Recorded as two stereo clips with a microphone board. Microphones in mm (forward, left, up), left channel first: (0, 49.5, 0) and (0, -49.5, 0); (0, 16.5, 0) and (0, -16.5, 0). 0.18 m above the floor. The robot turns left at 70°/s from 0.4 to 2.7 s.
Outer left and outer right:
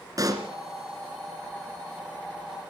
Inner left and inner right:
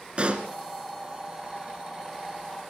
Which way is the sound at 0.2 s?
40° right (ahead or behind).